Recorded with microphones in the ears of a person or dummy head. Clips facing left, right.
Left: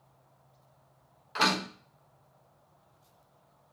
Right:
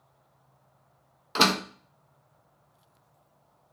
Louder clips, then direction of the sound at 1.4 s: Right 4 dB; 60° right (ahead or behind).